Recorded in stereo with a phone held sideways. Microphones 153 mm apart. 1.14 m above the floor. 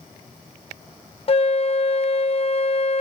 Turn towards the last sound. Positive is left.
turn(degrees=40)  # may be behind; listen again after turning